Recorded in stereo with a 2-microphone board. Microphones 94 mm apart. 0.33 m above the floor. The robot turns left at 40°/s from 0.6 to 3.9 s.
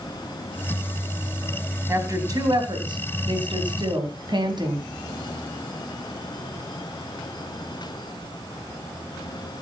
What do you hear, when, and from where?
1.9 s a woman speaking: 30° right (ahead or behind), 3 m; by 4.8 s 55° right (ahead or behind), 3 m